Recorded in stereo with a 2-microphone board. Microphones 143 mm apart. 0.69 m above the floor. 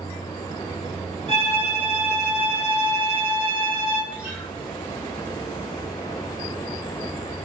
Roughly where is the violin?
Right.